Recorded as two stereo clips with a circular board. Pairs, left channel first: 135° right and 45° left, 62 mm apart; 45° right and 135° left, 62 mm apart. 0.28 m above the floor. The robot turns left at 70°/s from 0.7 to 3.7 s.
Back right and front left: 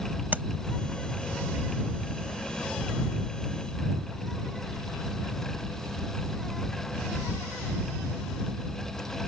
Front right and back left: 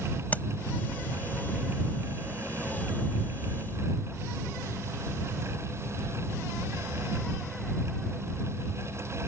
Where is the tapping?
Straight ahead.